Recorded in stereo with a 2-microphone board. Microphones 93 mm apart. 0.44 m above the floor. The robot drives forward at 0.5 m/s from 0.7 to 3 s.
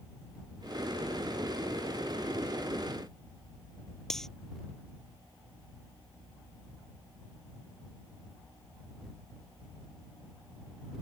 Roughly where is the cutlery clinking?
Centre.